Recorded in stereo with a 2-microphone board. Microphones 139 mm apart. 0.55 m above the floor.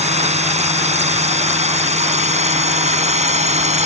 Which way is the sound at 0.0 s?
50° right (ahead or behind).